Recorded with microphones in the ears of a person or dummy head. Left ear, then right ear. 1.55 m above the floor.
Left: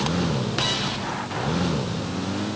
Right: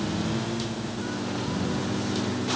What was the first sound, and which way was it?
Only background noise.